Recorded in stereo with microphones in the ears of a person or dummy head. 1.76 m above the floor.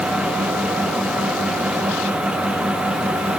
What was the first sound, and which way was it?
Only background noise.